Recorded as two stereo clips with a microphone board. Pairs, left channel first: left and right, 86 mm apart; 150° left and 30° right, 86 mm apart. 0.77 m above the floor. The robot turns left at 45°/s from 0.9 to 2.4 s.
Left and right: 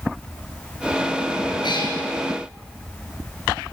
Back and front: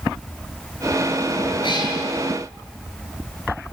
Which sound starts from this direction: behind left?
A cat meowing, at 1.6 s.